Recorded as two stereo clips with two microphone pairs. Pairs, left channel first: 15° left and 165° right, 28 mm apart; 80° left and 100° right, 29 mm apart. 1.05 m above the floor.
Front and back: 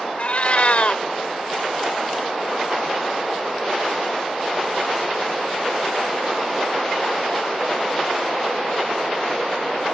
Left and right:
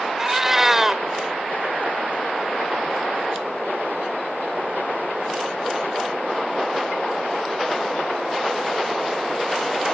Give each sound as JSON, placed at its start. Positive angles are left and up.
{"t": 0.2, "sound": "a cat meowing", "azimuth_deg": -25}